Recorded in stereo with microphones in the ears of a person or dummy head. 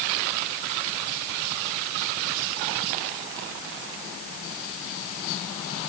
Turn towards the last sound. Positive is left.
No sound to turn to.